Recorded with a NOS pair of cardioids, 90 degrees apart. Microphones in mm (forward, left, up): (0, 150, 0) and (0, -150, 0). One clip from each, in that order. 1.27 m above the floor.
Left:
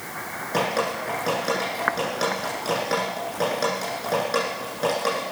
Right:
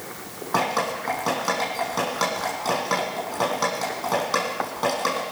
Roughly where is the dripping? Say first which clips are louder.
Right 1 dB; ahead right.